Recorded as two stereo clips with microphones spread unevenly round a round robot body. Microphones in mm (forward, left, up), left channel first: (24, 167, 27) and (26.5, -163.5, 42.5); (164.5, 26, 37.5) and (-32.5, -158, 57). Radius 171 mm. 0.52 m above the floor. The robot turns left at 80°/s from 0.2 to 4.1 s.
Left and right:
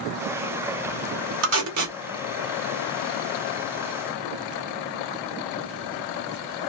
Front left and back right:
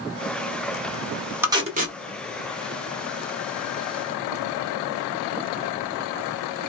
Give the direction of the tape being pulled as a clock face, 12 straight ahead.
2 o'clock.